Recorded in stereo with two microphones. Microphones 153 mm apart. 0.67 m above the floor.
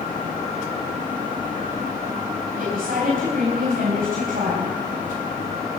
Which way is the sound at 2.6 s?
65° right (ahead or behind).